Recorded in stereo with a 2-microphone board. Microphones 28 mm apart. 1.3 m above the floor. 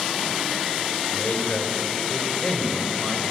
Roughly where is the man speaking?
Left.